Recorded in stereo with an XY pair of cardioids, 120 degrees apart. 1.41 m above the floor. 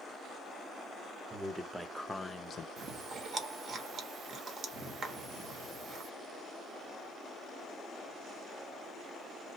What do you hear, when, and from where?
1.3 s a man speaking: 15° right, 1.1 m; by 2.7 s 55° left, 0.5 m
2.8 s chewing: 50° right, 1.0 m